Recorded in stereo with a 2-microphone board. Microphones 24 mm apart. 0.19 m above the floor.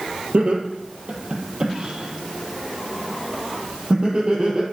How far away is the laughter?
About 4.5 m.